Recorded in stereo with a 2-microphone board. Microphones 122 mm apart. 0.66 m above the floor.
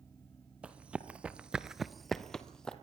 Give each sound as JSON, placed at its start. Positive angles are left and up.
{"t": 0.6, "sound": "running footsteps", "side_deg": -10, "distance_m": 1.3}